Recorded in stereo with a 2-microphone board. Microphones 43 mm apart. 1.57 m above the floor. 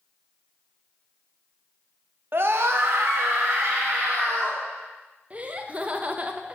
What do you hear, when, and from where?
2.3 s a scream: 55° right (ahead or behind), 0.7 m; by 4.6 s 75° right (ahead or behind), 3 m
5.3 s laughter: 30° right (ahead or behind), 0.5 m